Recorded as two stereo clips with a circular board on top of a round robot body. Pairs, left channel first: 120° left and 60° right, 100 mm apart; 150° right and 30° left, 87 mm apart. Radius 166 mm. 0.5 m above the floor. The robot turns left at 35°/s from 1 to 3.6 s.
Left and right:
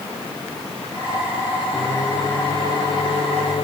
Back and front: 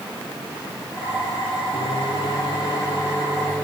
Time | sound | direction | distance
1.7 | a microwave | 160° right | 2.5 m